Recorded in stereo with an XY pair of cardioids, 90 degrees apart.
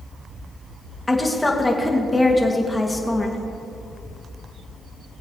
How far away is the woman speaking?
About 2 m.